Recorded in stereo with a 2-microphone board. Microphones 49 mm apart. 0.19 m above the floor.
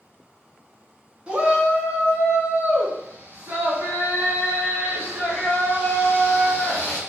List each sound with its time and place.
1.3 s a shout: 25° right (ahead or behind), 1.8 m; by 7.0 s 40° right (ahead or behind), 3 m